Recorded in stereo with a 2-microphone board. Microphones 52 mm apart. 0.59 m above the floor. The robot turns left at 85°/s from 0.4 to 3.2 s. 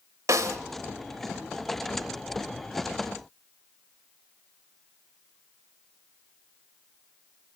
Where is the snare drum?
80° right, 1.2 m.